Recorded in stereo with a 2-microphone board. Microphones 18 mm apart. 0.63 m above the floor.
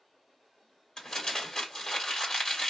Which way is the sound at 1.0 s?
45° left (ahead or behind).